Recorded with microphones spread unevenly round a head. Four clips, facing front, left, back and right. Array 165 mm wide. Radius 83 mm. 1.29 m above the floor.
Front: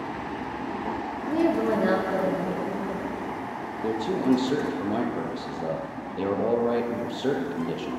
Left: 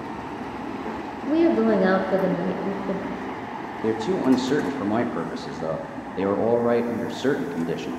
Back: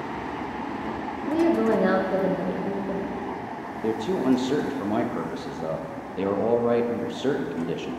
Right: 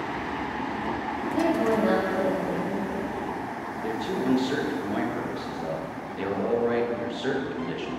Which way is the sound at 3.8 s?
55° left.